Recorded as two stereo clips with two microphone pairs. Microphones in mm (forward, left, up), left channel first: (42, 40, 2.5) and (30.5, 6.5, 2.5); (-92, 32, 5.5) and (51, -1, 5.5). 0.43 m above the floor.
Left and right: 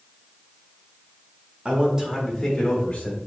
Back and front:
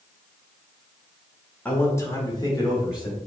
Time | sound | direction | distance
1.6 | a man speaking | 125° right | 1.0 m